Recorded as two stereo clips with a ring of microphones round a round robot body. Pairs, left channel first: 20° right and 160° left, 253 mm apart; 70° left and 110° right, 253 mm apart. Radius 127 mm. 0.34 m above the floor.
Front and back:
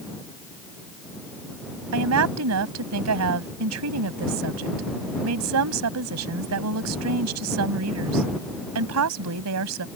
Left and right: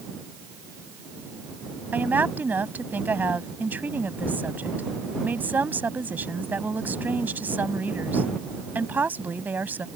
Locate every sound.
1.9 s a woman speaking: 165° left